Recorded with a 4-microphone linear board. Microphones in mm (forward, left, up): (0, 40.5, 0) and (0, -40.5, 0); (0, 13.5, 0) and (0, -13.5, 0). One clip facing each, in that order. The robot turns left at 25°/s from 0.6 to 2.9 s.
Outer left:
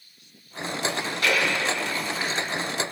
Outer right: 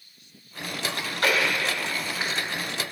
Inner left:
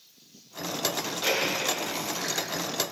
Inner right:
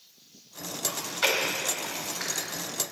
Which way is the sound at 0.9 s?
50° right (ahead or behind).